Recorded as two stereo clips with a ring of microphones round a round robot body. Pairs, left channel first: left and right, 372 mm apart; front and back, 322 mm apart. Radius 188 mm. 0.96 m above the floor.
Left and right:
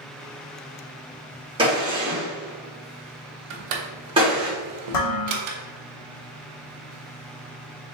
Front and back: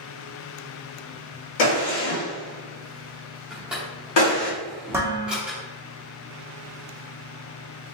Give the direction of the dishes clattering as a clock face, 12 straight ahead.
9 o'clock.